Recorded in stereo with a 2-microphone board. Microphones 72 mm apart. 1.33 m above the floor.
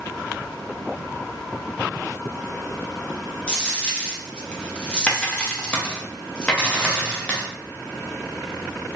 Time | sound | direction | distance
3.5 | a dropped coin | 15° left (ahead or behind) | 0.6 m